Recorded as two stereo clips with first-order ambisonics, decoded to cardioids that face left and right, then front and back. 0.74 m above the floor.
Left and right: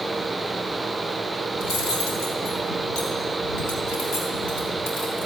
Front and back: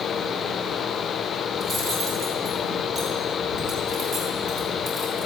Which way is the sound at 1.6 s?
115° left.